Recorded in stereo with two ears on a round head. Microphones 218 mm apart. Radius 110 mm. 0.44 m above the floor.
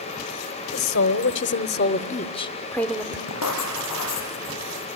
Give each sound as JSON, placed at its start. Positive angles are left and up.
{"t": 0.7, "sound": "a woman speaking", "side_deg": 55, "distance_m": 1.2}
{"t": 3.3, "sound": "writing", "side_deg": 70, "distance_m": 7.0}